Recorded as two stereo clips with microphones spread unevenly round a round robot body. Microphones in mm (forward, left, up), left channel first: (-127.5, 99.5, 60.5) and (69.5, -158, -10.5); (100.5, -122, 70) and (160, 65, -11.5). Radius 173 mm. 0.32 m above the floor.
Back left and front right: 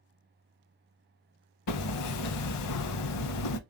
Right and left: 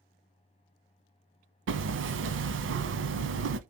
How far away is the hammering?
About 0.7 m.